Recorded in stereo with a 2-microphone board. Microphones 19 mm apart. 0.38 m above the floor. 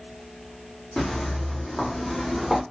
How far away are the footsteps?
About 1.4 m.